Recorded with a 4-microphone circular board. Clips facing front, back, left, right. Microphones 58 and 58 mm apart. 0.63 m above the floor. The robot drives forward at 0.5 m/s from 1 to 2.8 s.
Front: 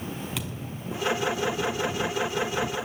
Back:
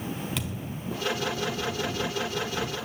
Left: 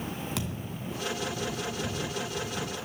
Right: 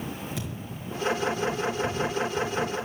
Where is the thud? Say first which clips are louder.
Back 1 dB, left 1 dB; 90° left, 3.5 m.